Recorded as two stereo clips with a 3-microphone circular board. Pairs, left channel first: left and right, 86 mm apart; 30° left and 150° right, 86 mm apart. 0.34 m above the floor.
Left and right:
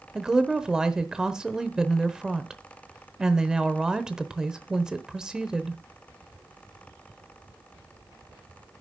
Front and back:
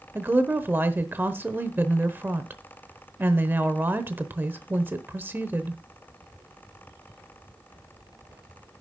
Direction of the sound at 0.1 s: 160° right.